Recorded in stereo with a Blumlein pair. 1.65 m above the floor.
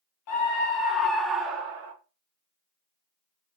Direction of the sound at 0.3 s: 40° left.